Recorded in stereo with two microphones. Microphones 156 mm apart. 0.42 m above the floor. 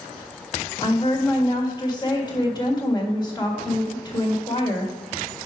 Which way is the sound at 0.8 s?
30° left (ahead or behind).